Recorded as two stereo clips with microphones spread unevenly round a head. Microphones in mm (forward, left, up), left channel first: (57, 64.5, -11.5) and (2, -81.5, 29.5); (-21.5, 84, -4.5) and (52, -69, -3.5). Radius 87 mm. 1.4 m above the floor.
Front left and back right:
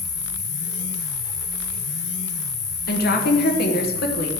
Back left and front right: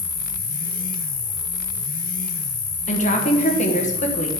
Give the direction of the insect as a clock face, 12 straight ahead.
8 o'clock.